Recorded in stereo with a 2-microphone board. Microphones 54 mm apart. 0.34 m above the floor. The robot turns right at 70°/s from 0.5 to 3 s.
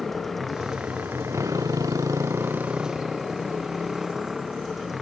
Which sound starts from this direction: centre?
A motorcycle, at 0.0 s.